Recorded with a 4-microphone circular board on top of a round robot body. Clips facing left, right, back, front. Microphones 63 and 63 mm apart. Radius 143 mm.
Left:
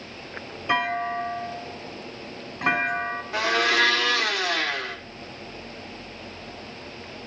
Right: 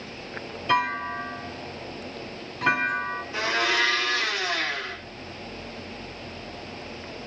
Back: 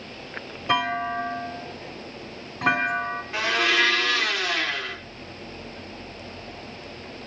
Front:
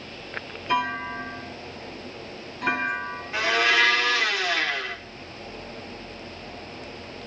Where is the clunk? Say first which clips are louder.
Even, back 2 dB; 155° left, 8.5 m.